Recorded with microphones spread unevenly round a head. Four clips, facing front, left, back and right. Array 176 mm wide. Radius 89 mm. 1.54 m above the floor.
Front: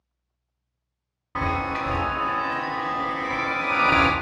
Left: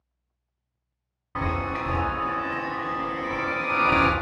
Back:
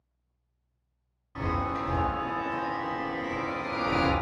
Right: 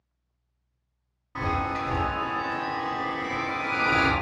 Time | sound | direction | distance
1.4 | a chime | 15° left | 0.6 m